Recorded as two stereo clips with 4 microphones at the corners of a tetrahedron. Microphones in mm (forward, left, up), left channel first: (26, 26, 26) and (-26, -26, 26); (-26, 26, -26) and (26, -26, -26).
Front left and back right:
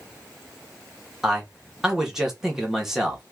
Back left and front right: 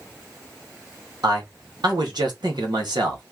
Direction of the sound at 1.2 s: 50° right.